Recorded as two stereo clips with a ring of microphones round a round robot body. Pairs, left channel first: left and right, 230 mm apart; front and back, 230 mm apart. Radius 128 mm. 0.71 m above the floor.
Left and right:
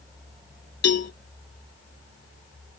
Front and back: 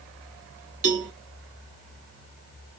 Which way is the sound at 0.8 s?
125° left.